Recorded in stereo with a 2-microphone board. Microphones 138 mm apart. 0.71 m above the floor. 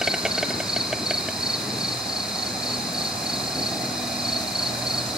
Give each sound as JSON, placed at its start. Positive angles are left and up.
{"t": 0.0, "sound": "an insect", "side_deg": -5, "distance_m": 1.5}